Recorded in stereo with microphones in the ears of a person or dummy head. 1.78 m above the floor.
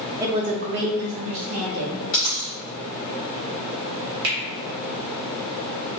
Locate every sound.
0.2 s a woman speaking: 10° right (ahead or behind), 0.7 m; by 2.0 s 80° right, 1.7 m
2.1 s a dropped coin: 15° left (ahead or behind), 1.9 m
4.2 s a finger snap: 65° right (ahead or behind), 1.7 m